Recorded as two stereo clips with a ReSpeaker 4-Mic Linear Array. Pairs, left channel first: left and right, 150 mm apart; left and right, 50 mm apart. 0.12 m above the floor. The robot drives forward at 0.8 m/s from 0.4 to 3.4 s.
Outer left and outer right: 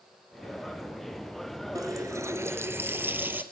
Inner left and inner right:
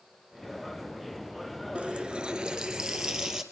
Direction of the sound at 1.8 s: 25° right (ahead or behind).